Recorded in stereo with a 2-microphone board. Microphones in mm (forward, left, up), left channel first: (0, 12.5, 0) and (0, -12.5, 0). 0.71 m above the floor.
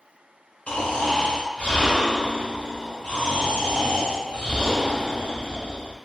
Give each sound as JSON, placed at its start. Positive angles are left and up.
{"t": 0.7, "sound": "snoring", "side_deg": 60, "distance_m": 1.5}